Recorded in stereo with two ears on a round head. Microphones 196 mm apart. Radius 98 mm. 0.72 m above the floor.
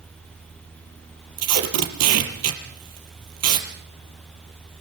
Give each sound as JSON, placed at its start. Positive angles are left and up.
{"t": 1.4, "sound": "tape being pulled", "side_deg": -75, "distance_m": 4.5}